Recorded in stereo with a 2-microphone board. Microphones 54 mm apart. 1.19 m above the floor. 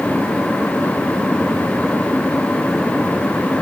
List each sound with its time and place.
Only background noise.